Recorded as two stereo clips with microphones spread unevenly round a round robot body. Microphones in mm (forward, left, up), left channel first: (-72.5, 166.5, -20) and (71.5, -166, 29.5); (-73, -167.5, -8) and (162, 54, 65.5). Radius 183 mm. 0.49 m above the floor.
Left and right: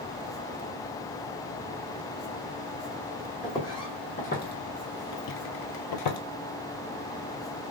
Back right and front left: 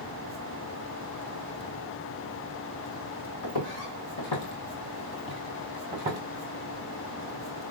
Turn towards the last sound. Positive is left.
turn(degrees=95)